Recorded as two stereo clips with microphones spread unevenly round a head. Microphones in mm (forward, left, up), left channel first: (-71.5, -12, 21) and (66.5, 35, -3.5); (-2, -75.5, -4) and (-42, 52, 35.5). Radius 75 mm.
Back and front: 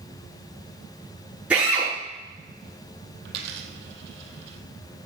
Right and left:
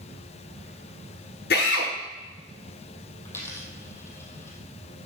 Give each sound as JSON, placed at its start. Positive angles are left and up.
{"t": 1.5, "sound": "a drill", "azimuth_deg": -65, "distance_m": 8.0}
{"t": 3.2, "sound": "a dropped coin", "azimuth_deg": 10, "distance_m": 2.0}